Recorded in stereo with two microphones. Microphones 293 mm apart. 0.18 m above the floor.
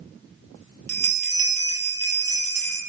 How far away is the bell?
About 1.9 m.